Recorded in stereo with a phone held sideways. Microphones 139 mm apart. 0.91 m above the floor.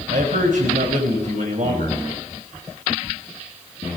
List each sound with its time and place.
0.1 s a man speaking: 75° right (ahead or behind), 4 m